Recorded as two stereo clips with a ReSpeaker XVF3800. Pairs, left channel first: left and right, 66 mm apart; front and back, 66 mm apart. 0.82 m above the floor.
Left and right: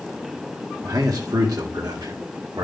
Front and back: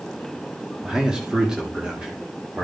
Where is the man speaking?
100° right, 1.7 m.